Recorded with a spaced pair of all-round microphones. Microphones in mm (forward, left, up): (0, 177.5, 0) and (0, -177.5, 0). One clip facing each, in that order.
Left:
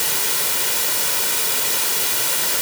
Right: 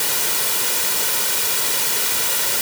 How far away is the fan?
I don't hear a fan.